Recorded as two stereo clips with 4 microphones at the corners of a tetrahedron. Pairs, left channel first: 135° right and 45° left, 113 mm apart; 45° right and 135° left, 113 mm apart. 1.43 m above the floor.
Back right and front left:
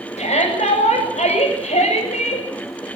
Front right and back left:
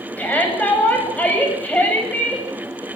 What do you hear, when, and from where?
0.2 s a shout: 120° right, 9 m